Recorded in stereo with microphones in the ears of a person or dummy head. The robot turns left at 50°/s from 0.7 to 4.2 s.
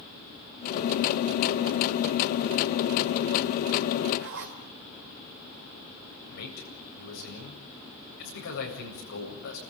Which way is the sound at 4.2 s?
55° right (ahead or behind).